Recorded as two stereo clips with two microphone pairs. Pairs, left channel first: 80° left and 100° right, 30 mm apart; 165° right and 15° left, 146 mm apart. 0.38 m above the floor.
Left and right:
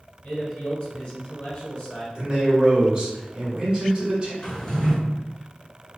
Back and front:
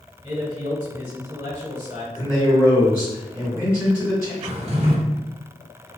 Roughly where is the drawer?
Ahead.